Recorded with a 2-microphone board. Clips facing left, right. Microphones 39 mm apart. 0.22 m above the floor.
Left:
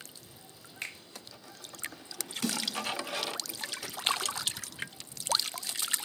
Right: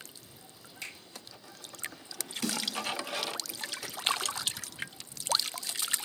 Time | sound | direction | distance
0.8 | a finger snap | 40° left (ahead or behind) | 1.0 m
2.4 | a snare drum | 5° left (ahead or behind) | 1.6 m